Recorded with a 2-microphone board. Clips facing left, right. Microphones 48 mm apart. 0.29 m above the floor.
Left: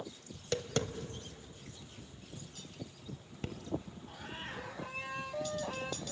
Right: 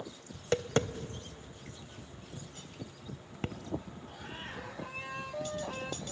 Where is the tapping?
40° right (ahead or behind), 0.8 m.